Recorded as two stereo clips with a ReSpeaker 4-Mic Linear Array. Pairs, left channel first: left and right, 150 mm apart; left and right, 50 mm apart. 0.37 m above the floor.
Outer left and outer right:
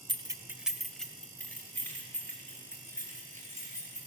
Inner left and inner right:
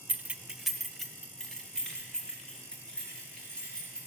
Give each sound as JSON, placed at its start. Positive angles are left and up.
{"t": 0.1, "sound": "keys jangling", "side_deg": -30, "distance_m": 0.7}